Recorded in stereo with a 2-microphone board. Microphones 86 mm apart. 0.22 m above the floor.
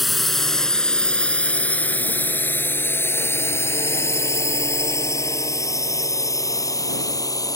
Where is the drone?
Centre (ahead or behind); by 7.6 s 45° left (ahead or behind).